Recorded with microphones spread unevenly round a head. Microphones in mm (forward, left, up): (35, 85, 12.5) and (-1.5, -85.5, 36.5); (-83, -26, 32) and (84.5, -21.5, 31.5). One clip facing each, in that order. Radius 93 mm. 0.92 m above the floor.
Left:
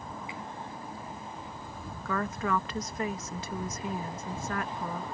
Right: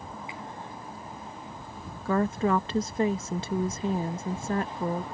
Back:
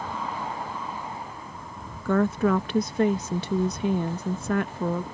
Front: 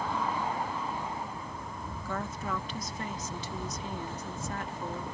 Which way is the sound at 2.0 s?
165° right.